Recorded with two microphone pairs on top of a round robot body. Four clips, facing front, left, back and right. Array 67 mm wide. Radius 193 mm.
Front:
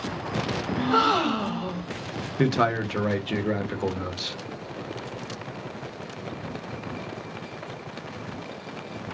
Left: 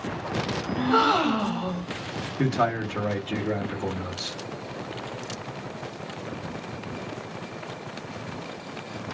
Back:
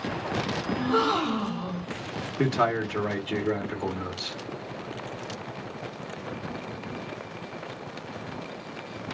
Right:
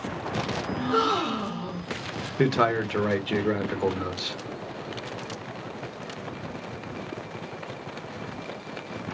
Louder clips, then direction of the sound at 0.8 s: Left 4 dB, front 3 dB; 45° left.